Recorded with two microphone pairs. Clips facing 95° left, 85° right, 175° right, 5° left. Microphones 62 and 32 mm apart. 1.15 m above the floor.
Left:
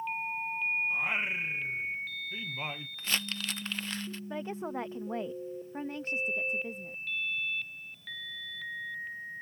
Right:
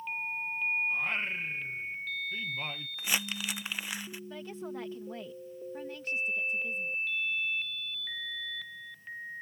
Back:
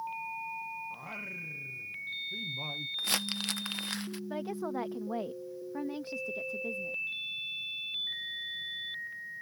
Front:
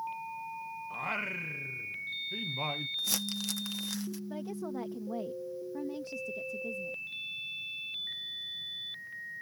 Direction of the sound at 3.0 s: 165° right.